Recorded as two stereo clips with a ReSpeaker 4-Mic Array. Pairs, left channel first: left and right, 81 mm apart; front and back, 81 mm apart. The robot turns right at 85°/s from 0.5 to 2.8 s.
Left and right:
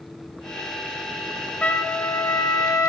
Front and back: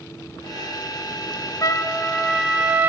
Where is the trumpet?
20° left, 0.7 m; by 2.9 s 125° left, 0.7 m.